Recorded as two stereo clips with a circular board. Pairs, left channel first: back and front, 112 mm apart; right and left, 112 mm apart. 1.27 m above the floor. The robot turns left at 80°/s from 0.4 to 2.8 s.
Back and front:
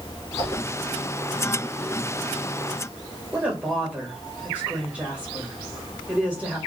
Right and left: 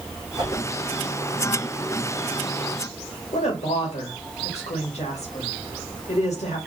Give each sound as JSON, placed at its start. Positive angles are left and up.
{"t": 0.4, "sound": "a whoosh", "azimuth_deg": 40, "distance_m": 1.8}
{"t": 3.3, "sound": "a woman speaking", "azimuth_deg": -80, "distance_m": 1.7}